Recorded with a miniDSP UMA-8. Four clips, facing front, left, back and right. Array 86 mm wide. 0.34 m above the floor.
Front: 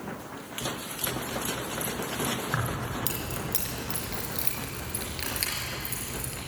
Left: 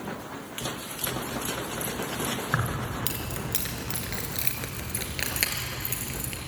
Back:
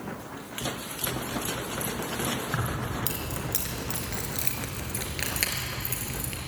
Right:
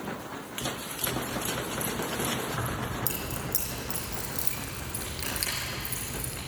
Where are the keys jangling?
80° left, 3.5 m; by 6.4 s 125° left, 5 m.